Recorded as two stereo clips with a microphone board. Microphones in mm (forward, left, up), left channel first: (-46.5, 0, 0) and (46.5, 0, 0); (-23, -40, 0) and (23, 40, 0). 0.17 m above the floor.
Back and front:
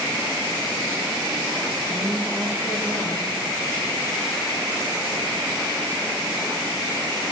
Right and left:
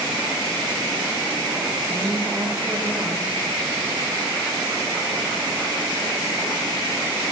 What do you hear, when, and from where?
1.9 s a woman speaking: 130° left, 9.5 m